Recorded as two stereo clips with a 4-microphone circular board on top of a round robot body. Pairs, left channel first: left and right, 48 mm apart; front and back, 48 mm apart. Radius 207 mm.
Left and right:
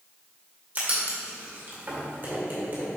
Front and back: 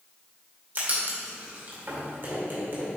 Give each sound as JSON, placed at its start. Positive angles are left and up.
{"t": 0.8, "sound": "writing", "azimuth_deg": -140, "distance_m": 2.5}